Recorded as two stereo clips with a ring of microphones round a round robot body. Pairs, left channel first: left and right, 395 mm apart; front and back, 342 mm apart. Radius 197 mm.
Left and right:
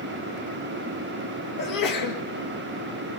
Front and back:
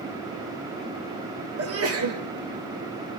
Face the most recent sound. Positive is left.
turn(degrees=135)